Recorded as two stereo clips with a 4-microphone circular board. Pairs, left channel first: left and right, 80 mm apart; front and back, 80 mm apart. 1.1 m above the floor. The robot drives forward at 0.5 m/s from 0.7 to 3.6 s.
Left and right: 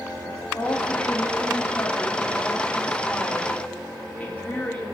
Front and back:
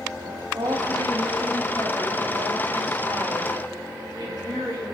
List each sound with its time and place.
0.5 s a woman speaking: 150° left, 2.5 m; by 4.8 s 160° left, 3.5 m